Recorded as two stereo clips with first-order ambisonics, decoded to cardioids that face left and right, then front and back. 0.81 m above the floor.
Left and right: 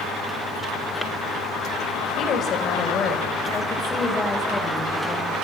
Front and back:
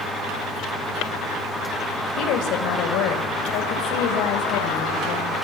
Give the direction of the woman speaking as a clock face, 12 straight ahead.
11 o'clock.